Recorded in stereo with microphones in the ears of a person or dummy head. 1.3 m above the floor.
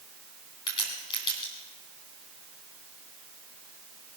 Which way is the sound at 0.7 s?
25° left (ahead or behind).